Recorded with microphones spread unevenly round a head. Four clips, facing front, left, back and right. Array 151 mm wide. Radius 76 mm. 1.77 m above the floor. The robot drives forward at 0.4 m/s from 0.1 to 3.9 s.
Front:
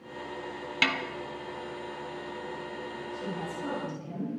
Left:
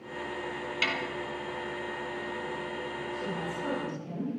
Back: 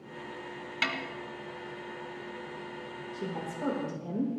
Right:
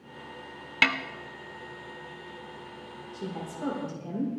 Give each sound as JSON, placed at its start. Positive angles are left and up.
{"t": 0.8, "sound": "a snare drum", "azimuth_deg": -55, "distance_m": 1.3}
{"t": 3.1, "sound": "a woman speaking", "azimuth_deg": -150, "distance_m": 7.0}